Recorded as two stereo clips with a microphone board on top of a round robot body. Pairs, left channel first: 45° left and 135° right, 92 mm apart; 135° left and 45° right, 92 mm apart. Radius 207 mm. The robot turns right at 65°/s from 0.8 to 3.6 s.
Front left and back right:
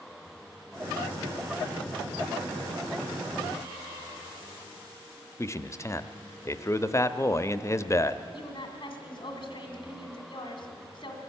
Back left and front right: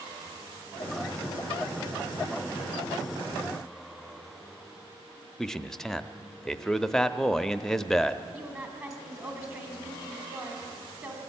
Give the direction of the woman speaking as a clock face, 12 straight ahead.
12 o'clock.